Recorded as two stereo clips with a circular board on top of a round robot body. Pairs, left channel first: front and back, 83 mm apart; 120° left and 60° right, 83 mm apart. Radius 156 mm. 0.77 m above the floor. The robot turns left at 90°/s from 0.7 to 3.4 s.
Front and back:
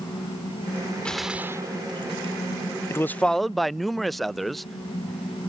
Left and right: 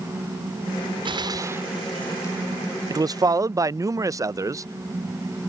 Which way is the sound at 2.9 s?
45° right.